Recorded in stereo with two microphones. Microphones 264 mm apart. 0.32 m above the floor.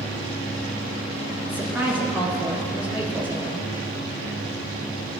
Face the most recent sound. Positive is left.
turn(degrees=-5)  # may be behind; listen again after turning